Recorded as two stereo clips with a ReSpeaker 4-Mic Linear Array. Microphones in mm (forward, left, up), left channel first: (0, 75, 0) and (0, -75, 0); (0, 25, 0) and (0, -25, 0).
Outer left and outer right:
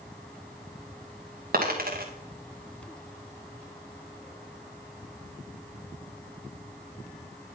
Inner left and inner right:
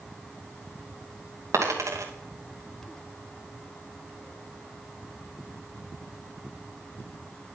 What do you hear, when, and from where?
1.5 s a dropped coin: 70° right (ahead or behind), 2.5 m